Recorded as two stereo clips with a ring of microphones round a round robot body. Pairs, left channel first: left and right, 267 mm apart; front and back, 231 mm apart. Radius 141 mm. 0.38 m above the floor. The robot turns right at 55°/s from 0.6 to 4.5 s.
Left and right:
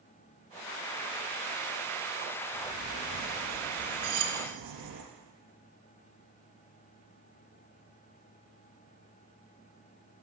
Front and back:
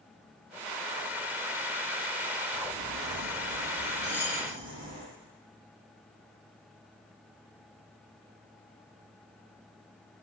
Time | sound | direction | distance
2.5 | a bird | 145° left | 4.5 m
4.0 | cutlery clinking | 90° right | 2 m